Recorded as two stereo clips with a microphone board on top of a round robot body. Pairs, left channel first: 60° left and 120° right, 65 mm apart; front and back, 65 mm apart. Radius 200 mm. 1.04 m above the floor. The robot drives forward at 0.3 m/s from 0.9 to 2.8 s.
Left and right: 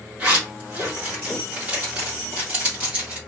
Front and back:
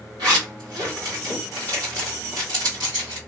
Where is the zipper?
175° left, 1.9 m.